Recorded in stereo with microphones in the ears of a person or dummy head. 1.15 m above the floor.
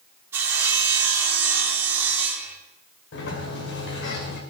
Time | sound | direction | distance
0.3 | sawing | 15° right (ahead or behind) | 3.5 m
3.1 | a sliding door | 60° left (ahead or behind) | 2.5 m